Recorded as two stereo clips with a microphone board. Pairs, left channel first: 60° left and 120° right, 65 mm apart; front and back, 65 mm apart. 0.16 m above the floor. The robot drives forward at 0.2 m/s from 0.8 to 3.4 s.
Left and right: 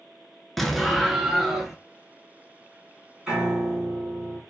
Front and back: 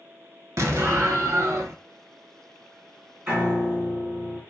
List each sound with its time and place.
0.6 s an explosion: 150° left, 0.5 m; by 1.8 s 160° left, 0.7 m
3.3 s a piano: 175° right, 1.4 m